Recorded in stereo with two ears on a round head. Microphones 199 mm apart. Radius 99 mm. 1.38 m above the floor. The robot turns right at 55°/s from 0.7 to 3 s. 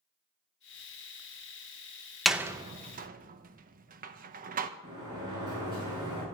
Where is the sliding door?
20° right (ahead or behind), 9 m.